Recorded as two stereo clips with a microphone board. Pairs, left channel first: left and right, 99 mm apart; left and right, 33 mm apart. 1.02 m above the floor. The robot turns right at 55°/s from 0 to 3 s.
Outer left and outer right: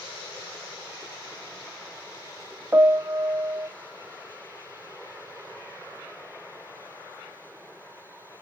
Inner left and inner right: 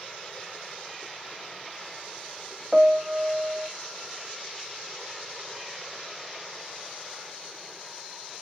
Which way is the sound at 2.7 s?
25° right (ahead or behind).